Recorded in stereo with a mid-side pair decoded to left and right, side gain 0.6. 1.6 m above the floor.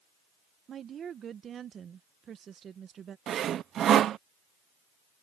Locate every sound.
0.7 s a woman speaking: 40° right
3.3 s sawing: 45° right